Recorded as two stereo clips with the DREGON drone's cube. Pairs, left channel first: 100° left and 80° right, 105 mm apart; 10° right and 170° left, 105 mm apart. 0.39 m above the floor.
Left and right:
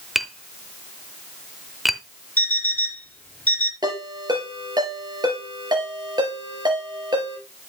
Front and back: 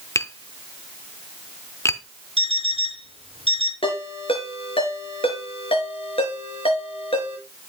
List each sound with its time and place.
0.1 s tapping: 10° left, 0.6 m
2.4 s an alarm clock: 175° left, 3 m
3.8 s a ringtone: 35° right, 4.5 m